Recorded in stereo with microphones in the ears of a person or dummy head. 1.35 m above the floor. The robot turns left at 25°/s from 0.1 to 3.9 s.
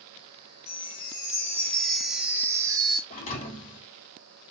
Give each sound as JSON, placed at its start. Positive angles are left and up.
{"t": 0.7, "sound": "a chime", "azimuth_deg": 35, "distance_m": 1.1}
{"t": 3.1, "sound": "a thud", "side_deg": 50, "distance_m": 1.9}